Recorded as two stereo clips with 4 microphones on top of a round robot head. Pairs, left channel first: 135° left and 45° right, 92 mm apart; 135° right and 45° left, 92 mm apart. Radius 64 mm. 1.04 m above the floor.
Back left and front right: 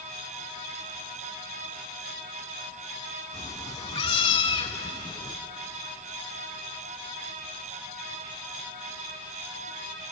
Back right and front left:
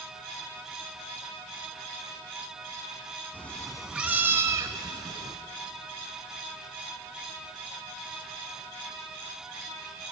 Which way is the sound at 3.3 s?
170° left.